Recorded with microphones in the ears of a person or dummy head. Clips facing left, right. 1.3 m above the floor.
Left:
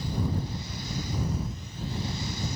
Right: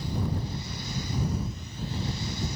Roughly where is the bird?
I don't hear a bird.